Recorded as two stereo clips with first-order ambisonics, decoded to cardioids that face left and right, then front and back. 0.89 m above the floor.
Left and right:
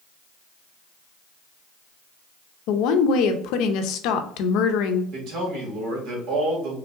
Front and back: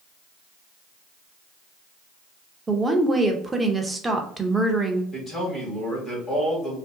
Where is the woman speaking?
100° left, 0.5 m.